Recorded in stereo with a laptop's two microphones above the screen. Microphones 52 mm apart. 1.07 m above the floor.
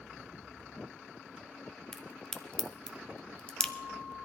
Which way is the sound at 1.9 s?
15° left (ahead or behind).